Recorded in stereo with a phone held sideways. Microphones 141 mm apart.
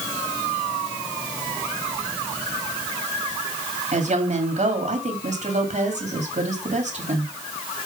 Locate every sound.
3.9 s a woman speaking: 60° right (ahead or behind), 2 m